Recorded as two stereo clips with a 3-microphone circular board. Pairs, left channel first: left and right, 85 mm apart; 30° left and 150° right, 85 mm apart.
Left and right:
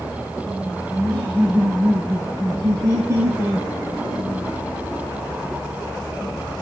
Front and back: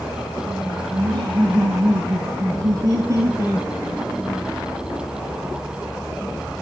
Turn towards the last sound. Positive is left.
turn(degrees=-80)